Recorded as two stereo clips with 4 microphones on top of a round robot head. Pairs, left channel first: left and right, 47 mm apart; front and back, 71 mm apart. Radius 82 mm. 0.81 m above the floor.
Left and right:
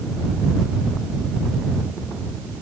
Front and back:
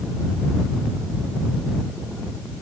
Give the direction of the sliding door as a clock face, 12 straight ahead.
I don't hear a sliding door.